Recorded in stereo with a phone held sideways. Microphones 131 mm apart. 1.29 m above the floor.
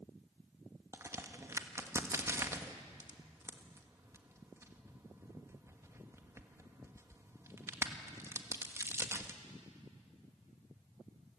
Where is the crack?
20° right (ahead or behind), 1.4 m.